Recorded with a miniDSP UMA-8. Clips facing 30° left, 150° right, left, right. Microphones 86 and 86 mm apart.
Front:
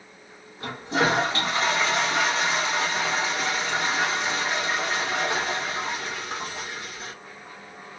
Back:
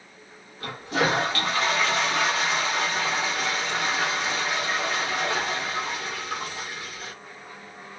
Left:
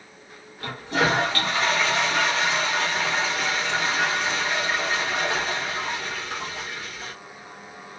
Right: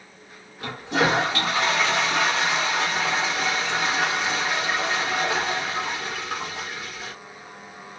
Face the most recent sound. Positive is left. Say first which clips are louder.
# front 1 dB, right 1 dB
turn(degrees=-25)